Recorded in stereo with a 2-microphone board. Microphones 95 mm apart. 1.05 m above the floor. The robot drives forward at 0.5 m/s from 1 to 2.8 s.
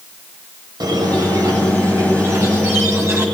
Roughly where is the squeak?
Right.